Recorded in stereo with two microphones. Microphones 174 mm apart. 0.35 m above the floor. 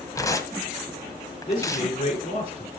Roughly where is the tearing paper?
Centre.